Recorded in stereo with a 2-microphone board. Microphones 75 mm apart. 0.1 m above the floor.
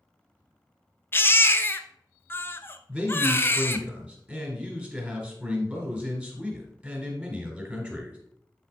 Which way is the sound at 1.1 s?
30° left (ahead or behind).